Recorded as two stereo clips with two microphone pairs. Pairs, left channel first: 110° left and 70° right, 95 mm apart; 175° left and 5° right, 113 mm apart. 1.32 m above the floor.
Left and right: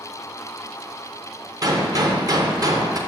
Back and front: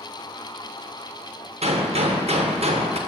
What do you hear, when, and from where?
1.6 s a gunshot: 25° right, 0.8 m